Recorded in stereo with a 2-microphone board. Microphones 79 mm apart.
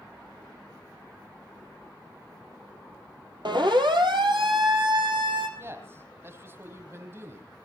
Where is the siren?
70° right (ahead or behind), 3 m; by 5.5 s 75° right (ahead or behind), 5 m.